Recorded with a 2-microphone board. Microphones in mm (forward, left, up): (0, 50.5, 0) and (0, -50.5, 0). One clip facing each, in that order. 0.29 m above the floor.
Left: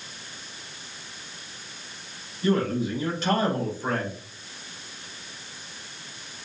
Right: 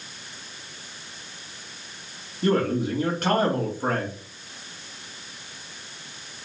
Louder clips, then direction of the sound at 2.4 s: Right 2 dB; 55° right (ahead or behind).